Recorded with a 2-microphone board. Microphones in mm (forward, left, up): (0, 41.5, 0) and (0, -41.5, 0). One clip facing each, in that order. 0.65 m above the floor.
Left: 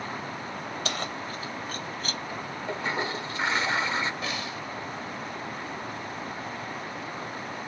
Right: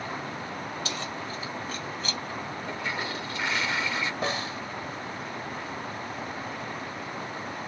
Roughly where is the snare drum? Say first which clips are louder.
Right 3 dB; right.